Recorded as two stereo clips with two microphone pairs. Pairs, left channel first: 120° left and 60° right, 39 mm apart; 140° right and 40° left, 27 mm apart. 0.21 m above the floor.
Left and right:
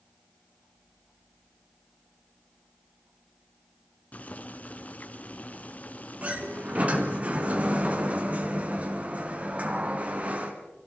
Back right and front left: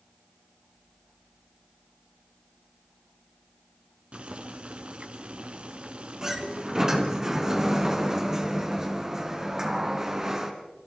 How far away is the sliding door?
About 3 m.